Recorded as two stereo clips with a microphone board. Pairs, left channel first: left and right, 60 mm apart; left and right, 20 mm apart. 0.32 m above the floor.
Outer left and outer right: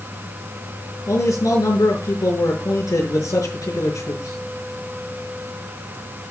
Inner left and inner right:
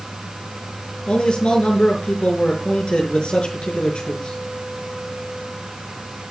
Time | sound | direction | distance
1.1 | a man speaking | 75° left (ahead or behind) | 6 m